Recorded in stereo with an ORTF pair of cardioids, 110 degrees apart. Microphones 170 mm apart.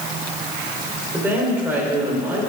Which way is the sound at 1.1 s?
10° right.